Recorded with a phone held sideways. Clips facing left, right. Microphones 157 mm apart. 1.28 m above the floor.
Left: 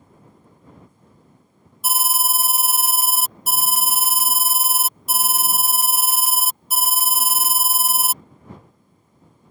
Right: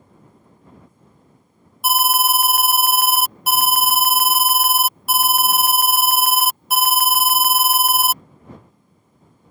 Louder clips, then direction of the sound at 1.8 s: Right 7 dB; 60° right (ahead or behind).